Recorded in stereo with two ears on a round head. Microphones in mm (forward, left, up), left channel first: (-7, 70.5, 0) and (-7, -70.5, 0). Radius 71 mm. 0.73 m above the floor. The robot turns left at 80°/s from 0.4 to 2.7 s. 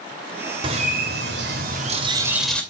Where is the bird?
30° right, 2.5 m; by 2.6 s 170° left, 2.5 m.